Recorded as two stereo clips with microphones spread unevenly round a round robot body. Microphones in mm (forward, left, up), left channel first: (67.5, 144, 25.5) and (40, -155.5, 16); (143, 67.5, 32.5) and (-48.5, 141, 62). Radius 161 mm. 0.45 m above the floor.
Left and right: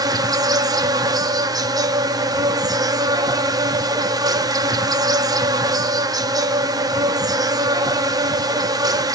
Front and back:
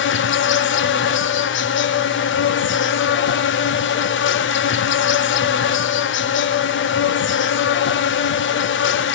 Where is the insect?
20° right, 0.8 m.